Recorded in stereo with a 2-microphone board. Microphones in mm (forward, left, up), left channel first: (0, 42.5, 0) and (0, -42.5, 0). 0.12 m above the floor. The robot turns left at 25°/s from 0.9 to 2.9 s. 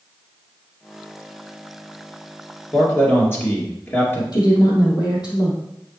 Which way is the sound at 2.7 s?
25° left (ahead or behind).